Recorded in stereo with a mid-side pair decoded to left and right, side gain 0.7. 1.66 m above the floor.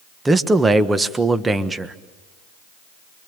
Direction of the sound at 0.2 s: 15° right.